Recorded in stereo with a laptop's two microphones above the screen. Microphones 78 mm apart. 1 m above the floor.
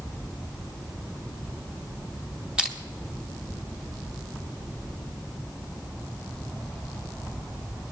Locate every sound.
2.6 s crushing: 10° right (ahead or behind), 1.9 m